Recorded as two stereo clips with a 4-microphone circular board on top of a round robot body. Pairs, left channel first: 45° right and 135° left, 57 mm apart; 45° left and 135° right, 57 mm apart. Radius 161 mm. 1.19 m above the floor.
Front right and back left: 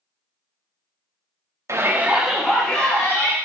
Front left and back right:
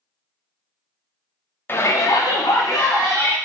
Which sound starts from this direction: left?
A shout, at 1.7 s.